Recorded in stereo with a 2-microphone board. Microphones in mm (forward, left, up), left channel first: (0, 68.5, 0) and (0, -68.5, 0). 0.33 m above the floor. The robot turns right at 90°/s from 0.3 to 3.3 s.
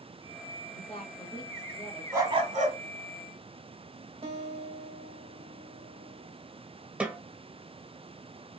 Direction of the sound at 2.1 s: 160° right.